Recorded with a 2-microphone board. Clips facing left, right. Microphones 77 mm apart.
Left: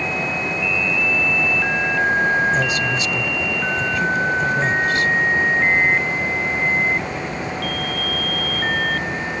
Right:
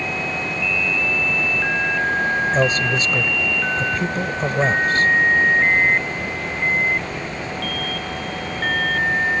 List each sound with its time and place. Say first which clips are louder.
2.5 s a man speaking: right 1 dB; 40° right (ahead or behind)